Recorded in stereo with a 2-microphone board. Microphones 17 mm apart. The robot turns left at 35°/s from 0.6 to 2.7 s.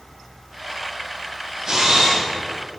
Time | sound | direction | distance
1.7 | a camera shutter | 40° right (ahead or behind) | 4 m